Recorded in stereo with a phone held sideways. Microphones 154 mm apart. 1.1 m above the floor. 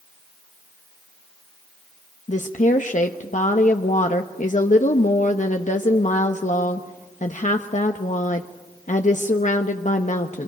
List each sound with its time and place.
2.3 s a woman speaking: 60° left (ahead or behind), 1.0 m